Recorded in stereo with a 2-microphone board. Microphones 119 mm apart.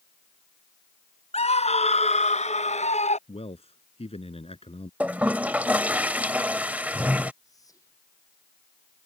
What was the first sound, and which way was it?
A scream, 65° left (ahead or behind).